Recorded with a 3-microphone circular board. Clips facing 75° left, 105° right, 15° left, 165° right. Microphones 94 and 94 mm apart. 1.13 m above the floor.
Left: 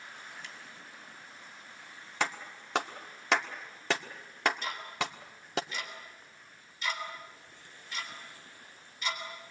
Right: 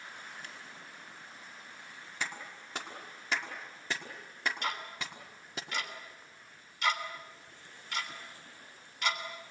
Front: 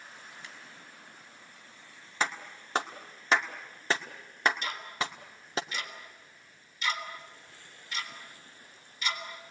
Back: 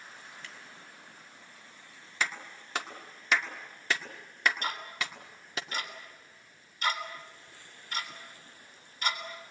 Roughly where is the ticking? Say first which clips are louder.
Left 1 dB, front 1 dB; behind right.